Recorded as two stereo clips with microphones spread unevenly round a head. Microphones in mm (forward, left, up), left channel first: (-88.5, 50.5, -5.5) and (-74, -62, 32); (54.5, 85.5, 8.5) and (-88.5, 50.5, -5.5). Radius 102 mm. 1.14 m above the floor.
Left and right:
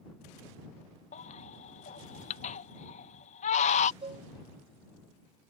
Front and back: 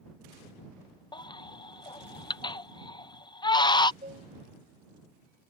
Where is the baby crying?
75° left.